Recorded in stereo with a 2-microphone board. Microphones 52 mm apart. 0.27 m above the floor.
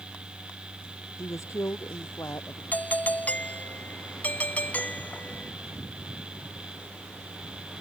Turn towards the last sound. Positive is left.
turn(degrees=35)  # may be behind; listen again after turning